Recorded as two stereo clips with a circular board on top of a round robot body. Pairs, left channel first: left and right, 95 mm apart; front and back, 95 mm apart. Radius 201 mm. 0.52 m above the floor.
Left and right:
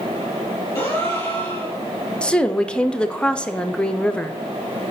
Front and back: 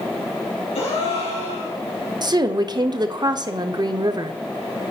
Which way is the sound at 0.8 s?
20° left.